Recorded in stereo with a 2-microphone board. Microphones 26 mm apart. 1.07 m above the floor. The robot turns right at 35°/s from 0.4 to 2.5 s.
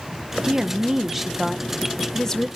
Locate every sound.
0.4 s a woman speaking: 40° right, 0.6 m; by 2.5 s 30° left, 0.6 m